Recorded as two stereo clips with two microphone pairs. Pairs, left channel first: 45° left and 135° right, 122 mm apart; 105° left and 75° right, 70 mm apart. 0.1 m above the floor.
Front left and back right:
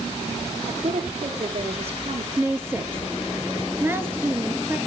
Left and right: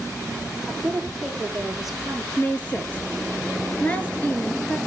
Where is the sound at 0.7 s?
165° right, 4 m.